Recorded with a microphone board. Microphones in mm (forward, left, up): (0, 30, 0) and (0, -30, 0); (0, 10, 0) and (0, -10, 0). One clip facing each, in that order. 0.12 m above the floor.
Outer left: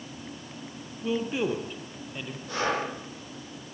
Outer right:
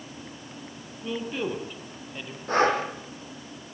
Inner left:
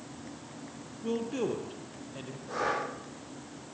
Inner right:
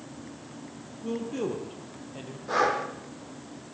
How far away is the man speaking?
About 4 m.